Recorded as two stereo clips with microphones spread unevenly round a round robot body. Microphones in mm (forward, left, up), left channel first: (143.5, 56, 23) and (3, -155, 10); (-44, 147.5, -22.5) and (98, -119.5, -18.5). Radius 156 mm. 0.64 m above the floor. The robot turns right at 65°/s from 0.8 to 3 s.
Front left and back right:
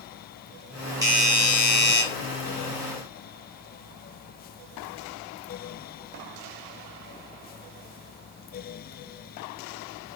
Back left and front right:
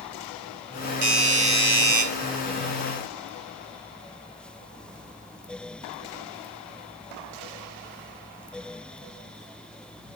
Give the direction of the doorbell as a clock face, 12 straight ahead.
2 o'clock.